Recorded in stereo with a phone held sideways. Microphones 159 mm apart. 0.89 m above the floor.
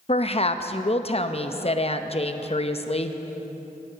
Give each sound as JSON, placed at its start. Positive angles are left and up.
{"t": 0.1, "sound": "a woman speaking", "side_deg": 40, "distance_m": 0.7}